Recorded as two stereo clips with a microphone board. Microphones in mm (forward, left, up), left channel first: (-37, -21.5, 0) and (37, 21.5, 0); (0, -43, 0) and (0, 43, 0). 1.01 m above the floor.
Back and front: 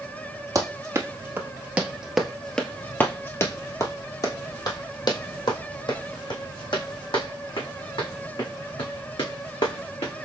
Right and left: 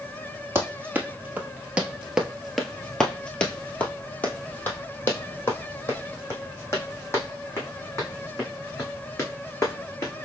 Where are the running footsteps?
40° left, 1.3 m; by 10.1 s 145° right, 4 m.